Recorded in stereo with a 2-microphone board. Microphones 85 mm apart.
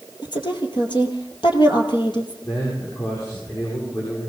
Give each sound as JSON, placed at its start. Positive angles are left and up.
{"t": 0.2, "sound": "a woman speaking", "side_deg": 65, "distance_m": 3.0}
{"t": 2.4, "sound": "a man speaking", "side_deg": 50, "distance_m": 8.5}